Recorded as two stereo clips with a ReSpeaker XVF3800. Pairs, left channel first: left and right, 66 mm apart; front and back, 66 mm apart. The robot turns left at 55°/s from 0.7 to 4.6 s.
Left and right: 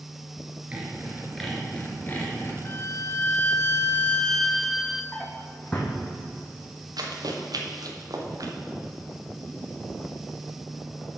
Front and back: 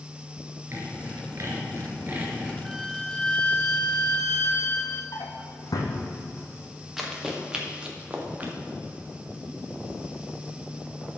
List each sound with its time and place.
0.7 s sawing: 150° right, 2 m; by 2.5 s 110° left, 2 m
2.6 s a violin: 100° left, 0.8 m; by 5.0 s 5° right, 0.8 m
5.1 s a drawer: 15° left, 1.8 m
7.0 s running footsteps: 95° right, 2.5 m; by 8.5 s 115° right, 2.5 m